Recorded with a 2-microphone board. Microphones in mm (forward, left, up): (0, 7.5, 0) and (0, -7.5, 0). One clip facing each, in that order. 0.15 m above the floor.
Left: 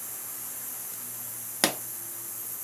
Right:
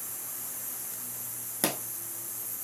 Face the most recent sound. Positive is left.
turn(degrees=50)  # may be behind; listen again after turning